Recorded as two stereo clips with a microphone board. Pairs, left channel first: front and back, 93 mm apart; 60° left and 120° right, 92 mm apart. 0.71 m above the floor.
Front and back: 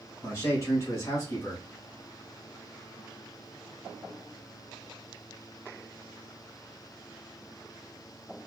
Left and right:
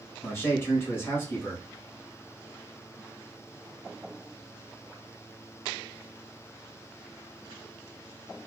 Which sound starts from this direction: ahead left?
A man speaking, at 0.2 s.